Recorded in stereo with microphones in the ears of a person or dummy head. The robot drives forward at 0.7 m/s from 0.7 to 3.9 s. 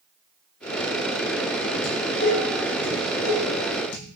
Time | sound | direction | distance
1.8 | dishes clattering | 80° left | 4.5 m